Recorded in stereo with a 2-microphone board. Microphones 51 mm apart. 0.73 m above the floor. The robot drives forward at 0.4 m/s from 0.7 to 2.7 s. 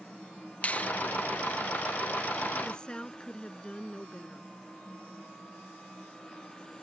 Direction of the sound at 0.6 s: 30° left (ahead or behind).